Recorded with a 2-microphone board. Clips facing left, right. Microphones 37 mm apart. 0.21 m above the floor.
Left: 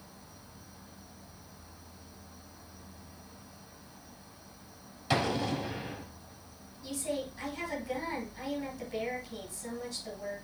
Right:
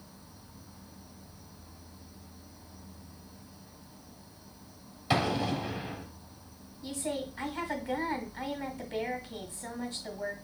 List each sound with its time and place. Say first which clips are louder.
0.0 s an insect: even; 15° right (ahead or behind), 2 m
5.1 s an explosion: right 1 dB; 10° right (ahead or behind), 1.2 m
6.8 s a woman speaking: even; 30° right (ahead or behind), 1.7 m